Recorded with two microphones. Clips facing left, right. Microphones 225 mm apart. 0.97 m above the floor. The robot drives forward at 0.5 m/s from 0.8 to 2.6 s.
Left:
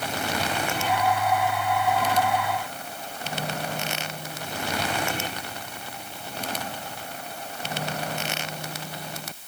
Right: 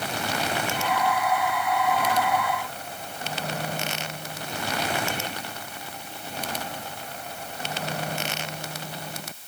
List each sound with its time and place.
Only background noise.